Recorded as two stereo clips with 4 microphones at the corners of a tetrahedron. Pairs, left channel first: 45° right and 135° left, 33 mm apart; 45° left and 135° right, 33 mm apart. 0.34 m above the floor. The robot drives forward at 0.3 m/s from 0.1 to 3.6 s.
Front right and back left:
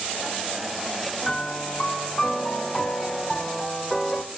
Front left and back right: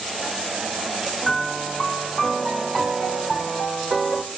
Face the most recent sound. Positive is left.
turn(degrees=-105)